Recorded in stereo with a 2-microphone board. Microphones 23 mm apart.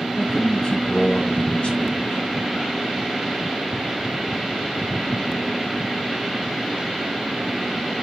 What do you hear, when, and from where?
0.2 s a man speaking: 70° left (ahead or behind), 4 m